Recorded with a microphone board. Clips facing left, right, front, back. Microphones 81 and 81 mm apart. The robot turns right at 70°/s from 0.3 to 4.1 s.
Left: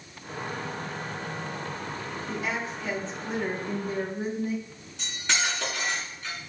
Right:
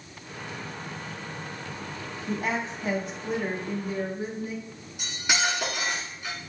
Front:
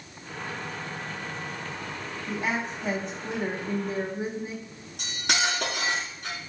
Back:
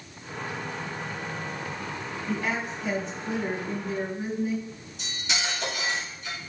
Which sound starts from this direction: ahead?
Cutlery clinking, at 5.0 s.